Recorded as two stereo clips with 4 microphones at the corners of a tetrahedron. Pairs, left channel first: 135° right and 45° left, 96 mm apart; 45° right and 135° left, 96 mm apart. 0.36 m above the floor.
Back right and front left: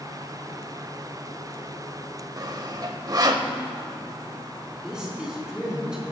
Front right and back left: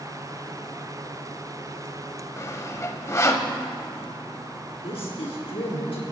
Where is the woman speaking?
35° right, 3 m.